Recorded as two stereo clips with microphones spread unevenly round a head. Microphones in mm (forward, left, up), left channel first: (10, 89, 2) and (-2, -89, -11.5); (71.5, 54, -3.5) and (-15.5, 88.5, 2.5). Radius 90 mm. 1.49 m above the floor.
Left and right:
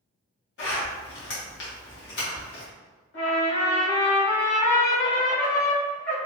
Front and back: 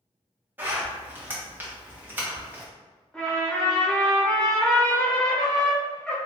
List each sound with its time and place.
0.6 s a zipper: 90° left, 1.5 m
3.1 s a trumpet: 60° left, 1.4 m